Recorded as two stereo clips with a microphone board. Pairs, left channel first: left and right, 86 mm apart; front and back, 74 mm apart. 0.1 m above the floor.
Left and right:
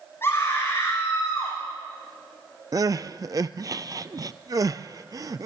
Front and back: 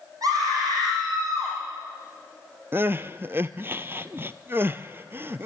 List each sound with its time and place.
0.2 s a scream: 150° left, 4.5 m
2.7 s crying: 125° right, 0.5 m